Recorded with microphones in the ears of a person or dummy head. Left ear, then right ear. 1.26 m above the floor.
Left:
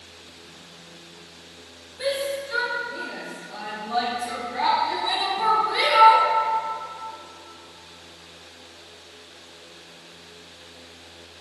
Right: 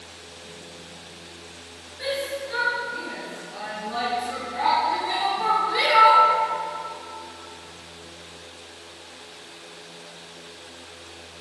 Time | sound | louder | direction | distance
2.0 | a shout | left 2 dB | 40° left (ahead or behind) | 1.8 m